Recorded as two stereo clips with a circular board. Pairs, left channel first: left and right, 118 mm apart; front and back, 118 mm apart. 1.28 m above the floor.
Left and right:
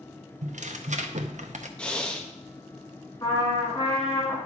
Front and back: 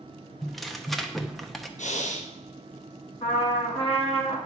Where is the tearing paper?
90° right, 0.8 m.